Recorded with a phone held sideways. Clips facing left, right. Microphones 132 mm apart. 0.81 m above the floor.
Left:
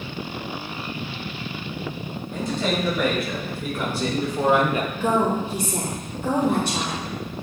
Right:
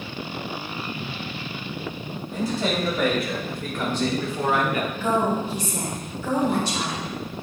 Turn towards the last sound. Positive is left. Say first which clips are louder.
# left 2 dB
turn(degrees=55)  # may be behind; listen again after turning